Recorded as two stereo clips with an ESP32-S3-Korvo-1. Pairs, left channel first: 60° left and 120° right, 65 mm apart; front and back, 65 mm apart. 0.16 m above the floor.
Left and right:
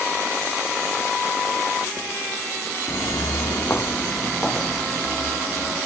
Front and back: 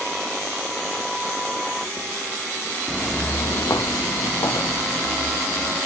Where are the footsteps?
90° left, 0.8 m; by 5.8 s 35° right, 3 m.